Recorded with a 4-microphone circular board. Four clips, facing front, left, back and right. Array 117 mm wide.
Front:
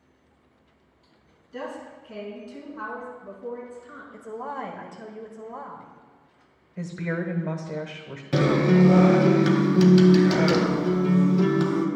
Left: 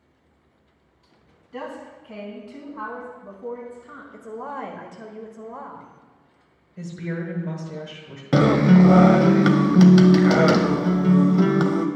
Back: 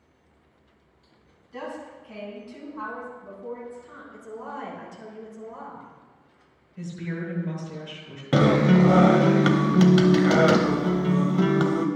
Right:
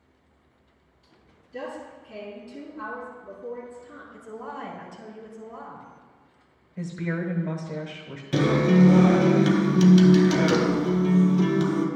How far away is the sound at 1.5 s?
About 3.5 m.